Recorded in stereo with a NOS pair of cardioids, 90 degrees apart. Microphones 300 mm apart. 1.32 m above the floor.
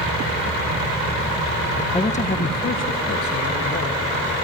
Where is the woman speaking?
15° left, 0.9 m; by 4.0 s 55° left, 2.0 m.